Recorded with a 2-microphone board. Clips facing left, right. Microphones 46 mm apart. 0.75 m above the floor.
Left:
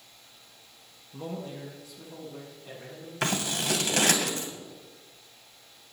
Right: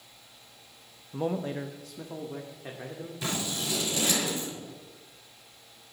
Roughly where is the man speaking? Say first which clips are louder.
Right 7 dB; right.